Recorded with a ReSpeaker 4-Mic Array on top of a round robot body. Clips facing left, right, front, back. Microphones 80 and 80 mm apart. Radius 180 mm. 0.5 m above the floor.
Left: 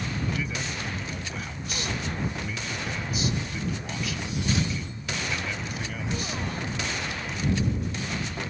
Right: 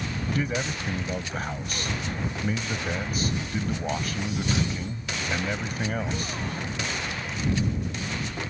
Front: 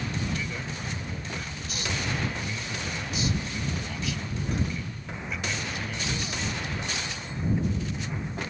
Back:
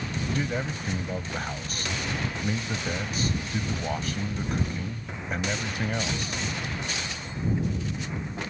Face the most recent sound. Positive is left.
turn(degrees=-135)